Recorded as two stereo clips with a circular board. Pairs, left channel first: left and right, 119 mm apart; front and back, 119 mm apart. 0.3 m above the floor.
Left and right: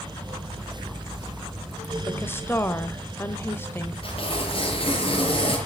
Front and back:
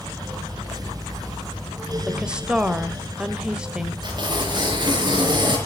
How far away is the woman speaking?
About 1.2 m.